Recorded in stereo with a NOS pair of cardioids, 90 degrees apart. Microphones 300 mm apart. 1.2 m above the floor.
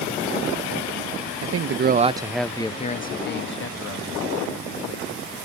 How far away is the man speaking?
About 1.2 m.